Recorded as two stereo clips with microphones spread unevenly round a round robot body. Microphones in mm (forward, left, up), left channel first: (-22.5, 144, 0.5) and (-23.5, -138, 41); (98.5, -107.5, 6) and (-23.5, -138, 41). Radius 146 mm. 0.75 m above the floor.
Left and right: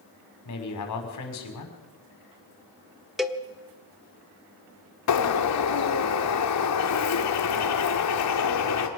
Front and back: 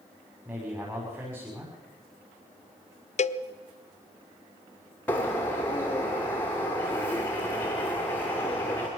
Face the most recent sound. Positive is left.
turn(degrees=85)